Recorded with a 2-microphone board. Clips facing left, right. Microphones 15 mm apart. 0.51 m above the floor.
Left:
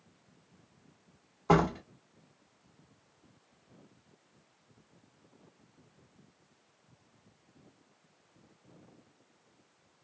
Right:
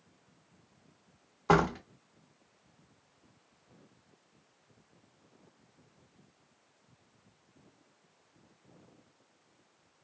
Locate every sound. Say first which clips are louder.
1.5 s a door slam: even; 20° right (ahead or behind), 0.8 m